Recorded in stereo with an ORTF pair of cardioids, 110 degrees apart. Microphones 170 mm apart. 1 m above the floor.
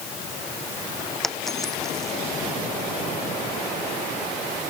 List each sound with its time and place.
1.2 s a dropped coin: straight ahead